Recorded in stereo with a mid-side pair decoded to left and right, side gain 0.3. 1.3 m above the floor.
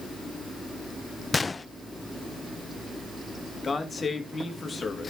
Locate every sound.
1.3 s a gunshot: 40° left, 0.6 m
3.6 s a man speaking: 45° left, 2.5 m